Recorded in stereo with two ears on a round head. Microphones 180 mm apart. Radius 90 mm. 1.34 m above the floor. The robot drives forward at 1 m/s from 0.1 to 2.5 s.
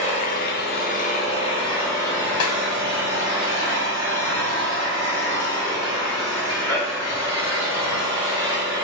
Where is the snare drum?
80° left, 0.8 m; by 2.6 s 75° left (ahead or behind), 0.8 m.